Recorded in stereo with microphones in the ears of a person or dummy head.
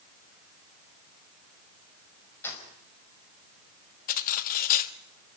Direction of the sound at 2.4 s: 15° left (ahead or behind).